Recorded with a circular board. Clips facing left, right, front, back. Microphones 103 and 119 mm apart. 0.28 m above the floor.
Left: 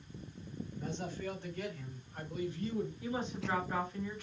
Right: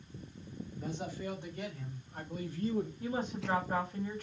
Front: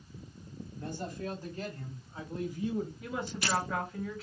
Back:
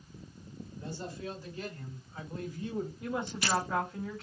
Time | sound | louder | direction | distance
0.8 | a man speaking | right 1 dB, front 2 dB | 10° right | 2.5 m
3.0 | a woman speaking | right 2 dB, back 2 dB | 85° right | 1.9 m